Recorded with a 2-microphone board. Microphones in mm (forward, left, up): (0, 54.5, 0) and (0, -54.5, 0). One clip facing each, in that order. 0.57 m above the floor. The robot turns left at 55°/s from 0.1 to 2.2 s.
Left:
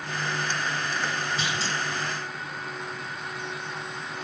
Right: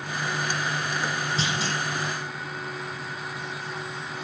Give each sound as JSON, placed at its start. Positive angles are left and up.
{"t": 1.4, "sound": "a clunk", "side_deg": -25, "distance_m": 4.0}